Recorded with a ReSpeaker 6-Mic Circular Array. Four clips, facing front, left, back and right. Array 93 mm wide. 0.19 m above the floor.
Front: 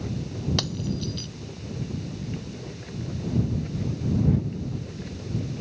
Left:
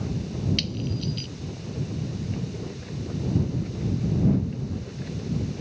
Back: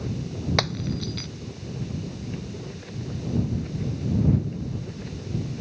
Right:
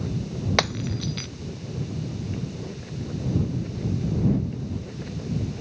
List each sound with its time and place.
0.6 s breaking glass: 115° right